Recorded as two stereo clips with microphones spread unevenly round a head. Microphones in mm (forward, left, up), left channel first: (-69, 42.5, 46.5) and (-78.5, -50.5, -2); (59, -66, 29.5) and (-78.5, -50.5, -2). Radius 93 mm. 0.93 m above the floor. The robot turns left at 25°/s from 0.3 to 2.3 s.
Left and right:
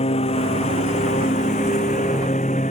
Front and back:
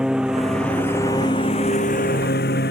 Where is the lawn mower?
85° left; by 2.7 s 35° left.